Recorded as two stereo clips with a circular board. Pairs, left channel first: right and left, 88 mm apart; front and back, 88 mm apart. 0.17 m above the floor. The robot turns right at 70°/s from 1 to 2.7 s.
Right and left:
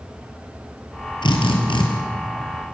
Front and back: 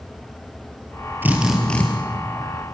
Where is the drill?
115° right, 3.5 m; by 1.8 s 70° right, 3.5 m.